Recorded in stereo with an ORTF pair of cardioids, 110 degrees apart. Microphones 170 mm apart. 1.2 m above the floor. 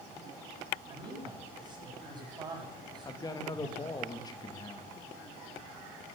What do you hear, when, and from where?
0.9 s a man speaking: 25° right, 7 m
3.0 s a man speaking: 25° left, 1.9 m